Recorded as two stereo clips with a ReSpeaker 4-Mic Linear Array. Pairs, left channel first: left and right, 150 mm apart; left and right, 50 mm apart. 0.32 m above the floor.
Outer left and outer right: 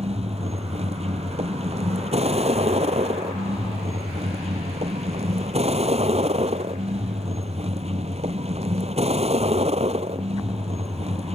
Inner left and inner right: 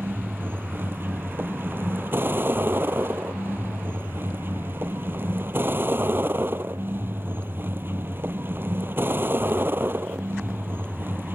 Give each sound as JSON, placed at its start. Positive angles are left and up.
{"t": 0.0, "sound": "a vehicle", "side_deg": -45}